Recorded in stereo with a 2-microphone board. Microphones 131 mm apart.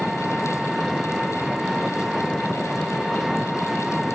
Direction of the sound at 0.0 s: Centre (ahead or behind).